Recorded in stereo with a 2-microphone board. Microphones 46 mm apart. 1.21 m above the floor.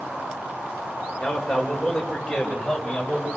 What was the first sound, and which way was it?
A man speaking, 5° left (ahead or behind).